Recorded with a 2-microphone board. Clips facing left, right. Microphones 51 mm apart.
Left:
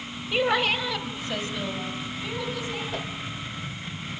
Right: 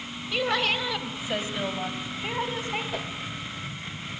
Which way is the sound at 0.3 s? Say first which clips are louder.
Left 2 dB; 20° left (ahead or behind).